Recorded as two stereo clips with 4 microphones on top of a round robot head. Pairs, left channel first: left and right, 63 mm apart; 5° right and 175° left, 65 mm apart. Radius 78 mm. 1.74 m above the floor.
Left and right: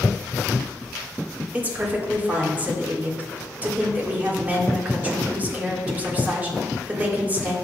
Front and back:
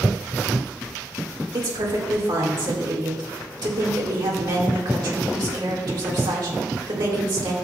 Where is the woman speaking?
150° right, 2 m.